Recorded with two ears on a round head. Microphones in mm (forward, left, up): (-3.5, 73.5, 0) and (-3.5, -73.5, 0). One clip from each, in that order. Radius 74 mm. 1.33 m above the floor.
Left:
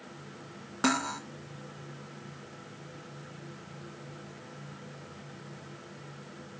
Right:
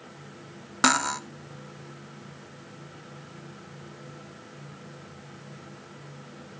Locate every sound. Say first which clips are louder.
0.8 s cutlery clinking: right 6 dB; 40° right (ahead or behind), 0.5 m